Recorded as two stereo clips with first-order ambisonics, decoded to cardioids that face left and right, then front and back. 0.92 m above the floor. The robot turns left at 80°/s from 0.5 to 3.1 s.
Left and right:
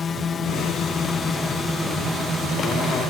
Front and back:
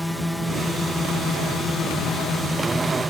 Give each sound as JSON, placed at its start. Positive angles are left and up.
{"t": 0.0, "sound": "a drone", "azimuth_deg": 90}